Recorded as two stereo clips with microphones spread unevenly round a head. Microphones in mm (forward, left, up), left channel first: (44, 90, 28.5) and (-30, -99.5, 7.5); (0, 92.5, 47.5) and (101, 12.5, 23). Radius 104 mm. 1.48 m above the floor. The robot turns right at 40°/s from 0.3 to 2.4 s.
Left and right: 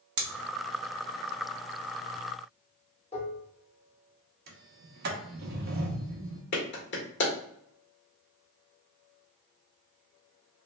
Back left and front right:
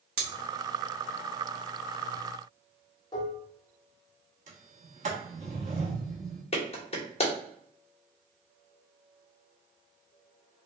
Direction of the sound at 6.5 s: 105° left.